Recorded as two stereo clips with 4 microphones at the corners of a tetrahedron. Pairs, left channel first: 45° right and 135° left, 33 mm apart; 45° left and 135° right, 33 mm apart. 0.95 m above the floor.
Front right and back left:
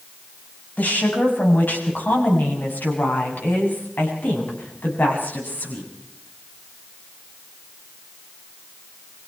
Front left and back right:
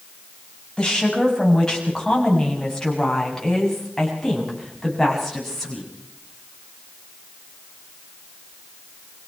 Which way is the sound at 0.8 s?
25° right.